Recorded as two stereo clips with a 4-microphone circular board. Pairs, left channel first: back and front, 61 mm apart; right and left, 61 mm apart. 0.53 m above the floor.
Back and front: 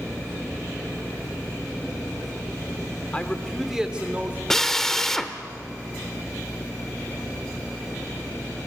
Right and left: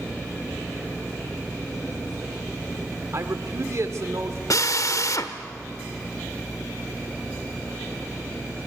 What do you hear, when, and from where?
3.1 s a man speaking: 115° left, 1.3 m; by 4.4 s 50° left, 1.5 m
4.5 s a drill: 100° right, 1.0 m